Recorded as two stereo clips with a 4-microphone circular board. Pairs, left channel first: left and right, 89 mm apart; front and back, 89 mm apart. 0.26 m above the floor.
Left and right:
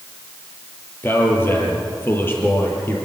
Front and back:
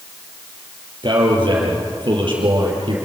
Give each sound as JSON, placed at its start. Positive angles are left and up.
{"t": 1.0, "sound": "a man speaking", "azimuth_deg": 155, "distance_m": 5.5}